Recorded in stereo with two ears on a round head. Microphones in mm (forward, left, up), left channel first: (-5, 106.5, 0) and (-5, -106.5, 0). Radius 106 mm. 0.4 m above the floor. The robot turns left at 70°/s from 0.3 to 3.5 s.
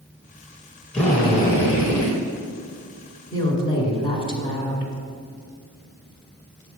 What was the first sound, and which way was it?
A drill, straight behind.